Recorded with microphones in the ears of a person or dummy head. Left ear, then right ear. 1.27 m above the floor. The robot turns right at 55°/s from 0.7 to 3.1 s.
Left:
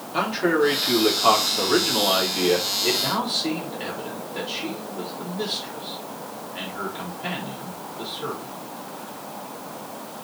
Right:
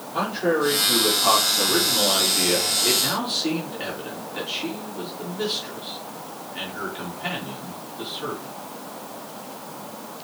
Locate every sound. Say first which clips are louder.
0.1 s a man speaking: left 1 dB; 60° left, 4 m; by 8.6 s 170° right, 4 m